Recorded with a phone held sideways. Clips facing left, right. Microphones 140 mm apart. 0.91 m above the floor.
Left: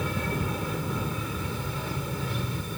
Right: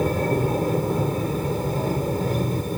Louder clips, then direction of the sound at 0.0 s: Right 9 dB; 45° right (ahead or behind).